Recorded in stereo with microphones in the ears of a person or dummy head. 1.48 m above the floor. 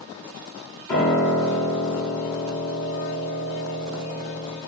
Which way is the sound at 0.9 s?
15° left (ahead or behind).